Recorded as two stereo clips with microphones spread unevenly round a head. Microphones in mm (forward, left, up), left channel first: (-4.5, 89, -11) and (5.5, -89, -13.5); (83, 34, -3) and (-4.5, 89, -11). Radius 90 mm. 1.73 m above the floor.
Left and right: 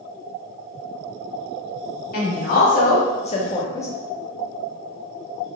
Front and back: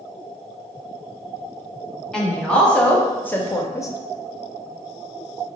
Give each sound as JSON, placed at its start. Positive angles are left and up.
{"t": 2.1, "sound": "a woman speaking", "azimuth_deg": 50, "distance_m": 1.3}